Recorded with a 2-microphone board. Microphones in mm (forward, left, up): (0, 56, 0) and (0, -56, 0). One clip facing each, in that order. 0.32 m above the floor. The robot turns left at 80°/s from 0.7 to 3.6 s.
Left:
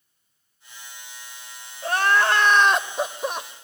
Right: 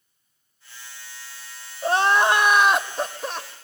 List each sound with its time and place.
1.8 s crying: 25° right (ahead or behind), 0.8 m; by 3.5 s 20° left (ahead or behind), 0.8 m